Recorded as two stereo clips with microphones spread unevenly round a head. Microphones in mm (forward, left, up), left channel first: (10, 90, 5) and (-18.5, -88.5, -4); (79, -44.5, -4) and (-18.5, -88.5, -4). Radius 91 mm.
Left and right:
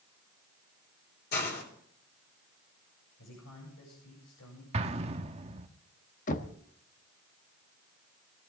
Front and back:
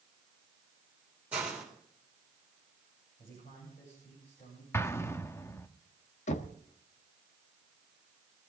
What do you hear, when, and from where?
1.3 s a hiss: 120° left, 3.5 m
3.2 s a man speaking: 75° left, 8 m
4.7 s an explosion: 40° right, 1.1 m
6.3 s knocking: 35° left, 1.3 m